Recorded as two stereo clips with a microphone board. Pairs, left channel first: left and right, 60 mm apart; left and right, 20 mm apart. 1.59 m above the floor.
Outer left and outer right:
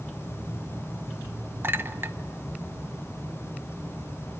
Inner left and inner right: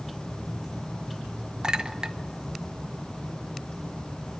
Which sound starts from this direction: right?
A clink, at 1.6 s.